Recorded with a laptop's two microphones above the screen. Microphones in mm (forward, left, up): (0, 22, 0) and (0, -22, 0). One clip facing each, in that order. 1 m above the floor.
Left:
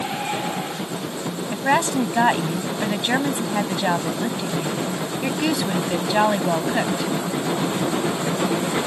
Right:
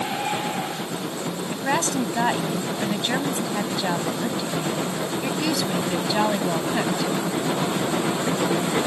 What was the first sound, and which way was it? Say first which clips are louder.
A woman speaking: left 5 dB; 20° left (ahead or behind).